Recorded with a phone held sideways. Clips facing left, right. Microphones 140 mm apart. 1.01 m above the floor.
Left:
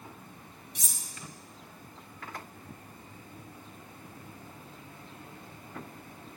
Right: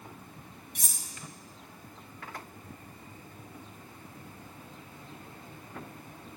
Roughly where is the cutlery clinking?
Right.